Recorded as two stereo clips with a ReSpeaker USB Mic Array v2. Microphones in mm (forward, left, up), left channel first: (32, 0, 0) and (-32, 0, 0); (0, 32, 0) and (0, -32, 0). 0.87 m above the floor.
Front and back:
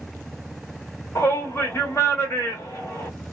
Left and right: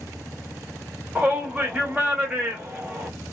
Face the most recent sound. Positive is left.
turn(degrees=-25)